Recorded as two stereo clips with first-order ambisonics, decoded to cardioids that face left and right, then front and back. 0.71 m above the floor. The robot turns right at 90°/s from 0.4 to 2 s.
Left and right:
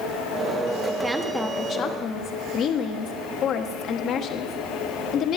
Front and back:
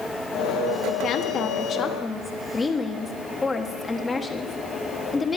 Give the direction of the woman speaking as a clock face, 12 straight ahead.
1 o'clock.